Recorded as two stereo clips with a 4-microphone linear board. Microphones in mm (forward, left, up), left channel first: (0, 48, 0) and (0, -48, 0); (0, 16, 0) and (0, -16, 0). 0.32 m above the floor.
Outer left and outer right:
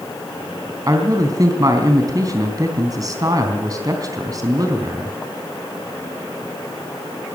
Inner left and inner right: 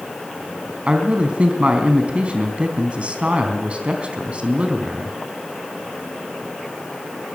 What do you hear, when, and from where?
0.9 s a man speaking: 40° right (ahead or behind), 3.5 m